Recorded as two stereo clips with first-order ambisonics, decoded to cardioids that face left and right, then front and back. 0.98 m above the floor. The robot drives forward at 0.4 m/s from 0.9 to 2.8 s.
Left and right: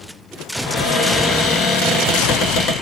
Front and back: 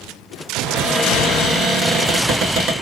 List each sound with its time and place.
0.6 s a cupboard door: 90° left, 0.8 m; by 2.7 s 135° left, 1.1 m